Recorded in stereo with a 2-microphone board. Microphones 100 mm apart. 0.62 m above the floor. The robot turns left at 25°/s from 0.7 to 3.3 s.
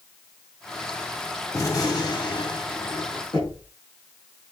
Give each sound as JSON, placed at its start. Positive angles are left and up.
{"t": 1.5, "sound": "a gunshot", "azimuth_deg": 145, "distance_m": 1.4}
{"t": 3.3, "sound": "knocking", "side_deg": 50, "distance_m": 4.5}